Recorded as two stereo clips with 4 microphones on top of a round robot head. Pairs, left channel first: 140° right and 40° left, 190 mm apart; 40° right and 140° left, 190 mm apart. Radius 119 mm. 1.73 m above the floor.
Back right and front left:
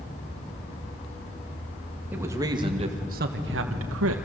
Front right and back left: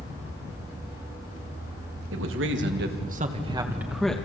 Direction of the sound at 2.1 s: 125° left.